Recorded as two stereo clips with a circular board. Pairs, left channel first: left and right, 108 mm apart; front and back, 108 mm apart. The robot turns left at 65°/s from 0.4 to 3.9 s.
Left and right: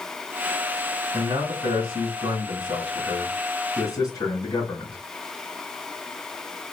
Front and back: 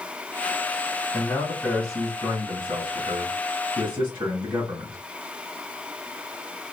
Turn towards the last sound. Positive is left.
turn(degrees=120)